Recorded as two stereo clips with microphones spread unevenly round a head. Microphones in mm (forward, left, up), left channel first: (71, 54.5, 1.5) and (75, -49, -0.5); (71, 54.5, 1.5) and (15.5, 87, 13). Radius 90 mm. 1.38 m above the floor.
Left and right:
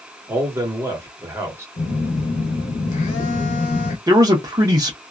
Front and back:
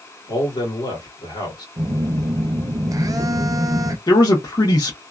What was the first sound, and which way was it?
A man speaking, 20° right.